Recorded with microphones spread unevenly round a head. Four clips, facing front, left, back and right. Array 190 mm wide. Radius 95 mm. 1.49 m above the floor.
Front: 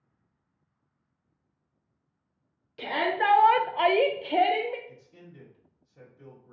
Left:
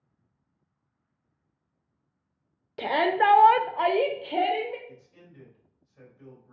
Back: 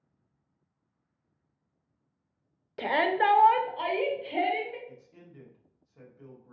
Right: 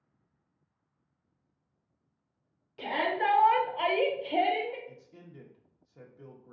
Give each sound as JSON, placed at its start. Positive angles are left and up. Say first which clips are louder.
{"t": 2.8, "sound": "a shout", "louder": "left 7 dB, back 2 dB", "azimuth_deg": 105, "distance_m": 0.6}
{"t": 4.9, "sound": "a man speaking", "louder": "even, even", "azimuth_deg": -80, "distance_m": 1.1}